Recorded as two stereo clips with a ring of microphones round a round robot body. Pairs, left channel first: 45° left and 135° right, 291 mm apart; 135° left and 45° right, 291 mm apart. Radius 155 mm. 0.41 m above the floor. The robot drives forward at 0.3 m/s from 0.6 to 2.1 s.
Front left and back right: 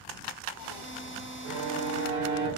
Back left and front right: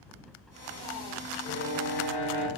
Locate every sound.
1.4 s a violin: 170° right, 0.7 m